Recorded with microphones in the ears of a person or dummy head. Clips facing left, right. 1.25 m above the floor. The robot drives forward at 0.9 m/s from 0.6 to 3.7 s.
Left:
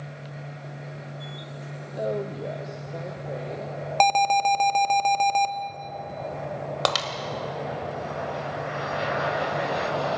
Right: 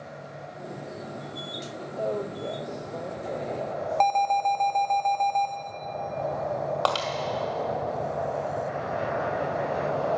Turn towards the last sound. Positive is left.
turn(degrees=25)  # may be behind; listen again after turning